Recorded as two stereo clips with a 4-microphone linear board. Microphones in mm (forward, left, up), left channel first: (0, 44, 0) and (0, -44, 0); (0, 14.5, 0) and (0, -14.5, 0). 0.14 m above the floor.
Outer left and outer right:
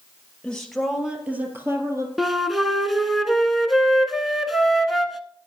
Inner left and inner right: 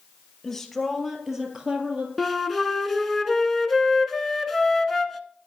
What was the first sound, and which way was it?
A woman speaking, 10° left (ahead or behind).